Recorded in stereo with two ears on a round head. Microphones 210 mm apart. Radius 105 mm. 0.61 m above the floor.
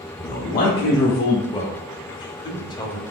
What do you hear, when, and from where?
0.2 s a man speaking: 30° left (ahead or behind), 1.1 m; by 1.4 s 60° left (ahead or behind), 1.2 m
1.5 s a man speaking: 20° left (ahead or behind), 0.8 m